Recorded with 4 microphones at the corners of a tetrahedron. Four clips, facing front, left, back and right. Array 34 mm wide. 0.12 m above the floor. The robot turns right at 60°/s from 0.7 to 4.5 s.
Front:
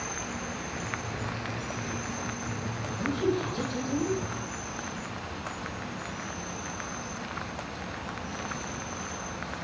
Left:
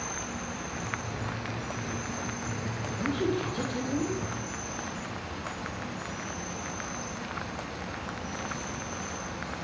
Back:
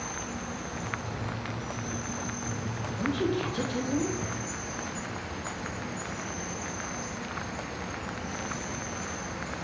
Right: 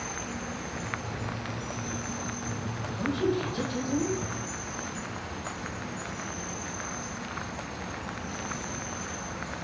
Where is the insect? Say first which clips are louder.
Even, front 1 dB; 35° right, 1.6 m; by 9.7 s 170° right, 1.6 m.